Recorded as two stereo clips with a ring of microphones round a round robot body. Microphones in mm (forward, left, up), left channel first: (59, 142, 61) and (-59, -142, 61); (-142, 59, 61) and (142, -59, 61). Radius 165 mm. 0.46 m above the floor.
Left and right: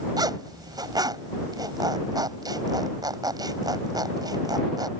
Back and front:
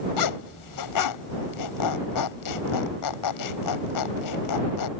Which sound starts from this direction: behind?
A zipper, at 0.2 s.